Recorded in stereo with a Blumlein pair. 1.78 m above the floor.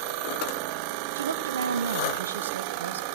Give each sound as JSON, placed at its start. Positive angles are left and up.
{"t": 1.1, "sound": "a woman speaking", "azimuth_deg": -70, "distance_m": 0.6}